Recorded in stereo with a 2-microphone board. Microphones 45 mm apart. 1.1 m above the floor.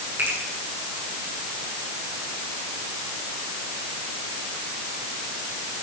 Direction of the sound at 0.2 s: 60° right (ahead or behind).